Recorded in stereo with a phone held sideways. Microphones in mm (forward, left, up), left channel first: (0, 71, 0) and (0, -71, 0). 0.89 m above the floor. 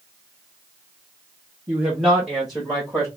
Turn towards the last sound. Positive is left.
turn(degrees=5)  # may be behind; listen again after turning